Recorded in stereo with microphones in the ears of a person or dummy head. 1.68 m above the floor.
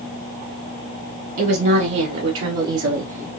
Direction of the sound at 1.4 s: 65° right (ahead or behind).